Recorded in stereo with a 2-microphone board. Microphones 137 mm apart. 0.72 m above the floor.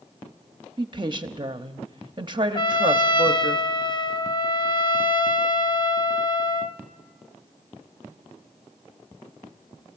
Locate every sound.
0.8 s a woman speaking: 35° right (ahead or behind), 0.8 m
2.5 s a trumpet: 35° left (ahead or behind), 0.6 m